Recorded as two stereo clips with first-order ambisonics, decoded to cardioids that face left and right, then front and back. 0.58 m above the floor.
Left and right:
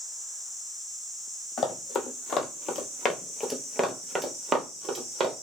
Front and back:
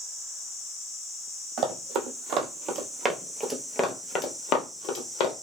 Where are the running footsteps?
140° left, 1.1 m; by 5.3 s 25° right, 1.0 m.